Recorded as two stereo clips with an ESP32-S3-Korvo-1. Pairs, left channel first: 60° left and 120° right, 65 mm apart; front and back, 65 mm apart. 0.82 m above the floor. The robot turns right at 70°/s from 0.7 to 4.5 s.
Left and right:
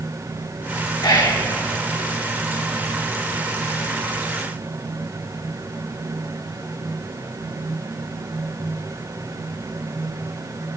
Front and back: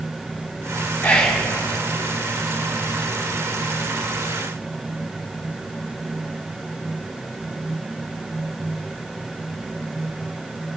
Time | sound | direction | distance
1.0 | whispering | 65° left | 1.8 m